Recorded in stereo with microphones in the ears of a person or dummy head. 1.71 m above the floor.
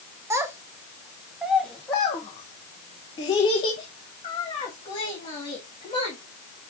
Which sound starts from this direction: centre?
A child speaking, at 0.3 s.